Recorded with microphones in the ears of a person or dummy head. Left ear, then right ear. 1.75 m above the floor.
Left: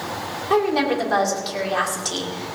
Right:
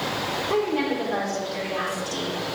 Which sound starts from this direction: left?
A woman speaking, at 0.5 s.